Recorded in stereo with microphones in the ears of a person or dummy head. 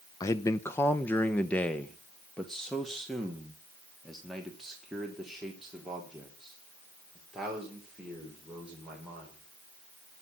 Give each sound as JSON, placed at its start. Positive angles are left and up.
{"t": 0.2, "sound": "a man speaking", "side_deg": 25, "distance_m": 0.7}